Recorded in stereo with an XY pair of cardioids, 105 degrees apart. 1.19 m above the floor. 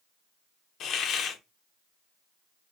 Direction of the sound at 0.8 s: 70° left.